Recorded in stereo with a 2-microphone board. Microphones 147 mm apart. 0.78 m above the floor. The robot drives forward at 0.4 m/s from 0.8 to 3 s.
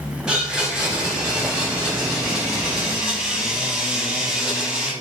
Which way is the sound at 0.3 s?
5° right (ahead or behind).